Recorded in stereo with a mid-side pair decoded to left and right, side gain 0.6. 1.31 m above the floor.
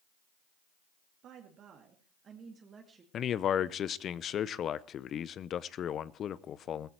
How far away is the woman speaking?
About 2.5 m.